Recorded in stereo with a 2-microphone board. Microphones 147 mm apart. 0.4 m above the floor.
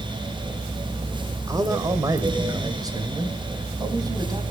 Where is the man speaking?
25° right (ahead or behind), 1.9 m.